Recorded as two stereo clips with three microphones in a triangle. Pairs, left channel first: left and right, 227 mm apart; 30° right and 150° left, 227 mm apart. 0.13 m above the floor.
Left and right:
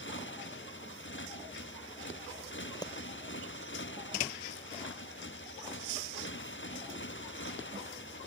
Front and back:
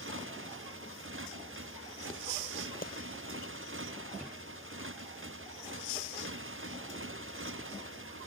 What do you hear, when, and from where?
0.0 s a motorcycle: 125° left
2.8 s a clap: 15° left